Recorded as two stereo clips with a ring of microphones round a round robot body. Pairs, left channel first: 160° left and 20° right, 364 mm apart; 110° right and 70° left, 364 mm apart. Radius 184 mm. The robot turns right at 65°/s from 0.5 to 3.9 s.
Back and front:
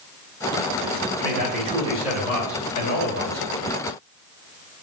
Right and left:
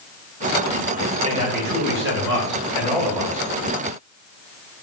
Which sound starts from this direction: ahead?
A man speaking, at 1.2 s.